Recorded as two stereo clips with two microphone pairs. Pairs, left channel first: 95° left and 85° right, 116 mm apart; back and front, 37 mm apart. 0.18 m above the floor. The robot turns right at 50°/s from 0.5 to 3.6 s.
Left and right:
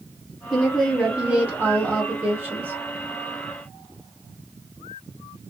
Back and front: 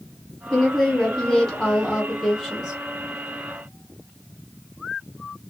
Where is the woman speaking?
170° right, 1.4 m; by 2.8 s 55° right, 1.4 m.